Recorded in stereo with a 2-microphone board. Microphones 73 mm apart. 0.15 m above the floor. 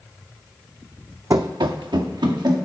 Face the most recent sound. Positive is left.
turn(degrees=-75)  # may be behind; listen again after turning